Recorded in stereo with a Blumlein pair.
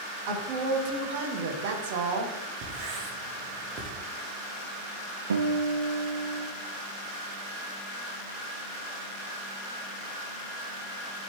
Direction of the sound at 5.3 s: 70° right.